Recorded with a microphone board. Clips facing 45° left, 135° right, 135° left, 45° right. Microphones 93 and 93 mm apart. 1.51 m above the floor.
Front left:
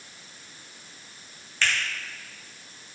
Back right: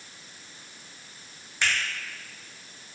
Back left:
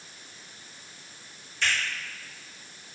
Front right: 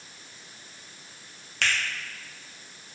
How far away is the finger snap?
About 0.6 m.